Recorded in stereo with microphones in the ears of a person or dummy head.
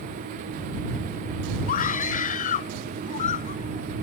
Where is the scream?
45° left (ahead or behind); by 4.0 s 35° left (ahead or behind).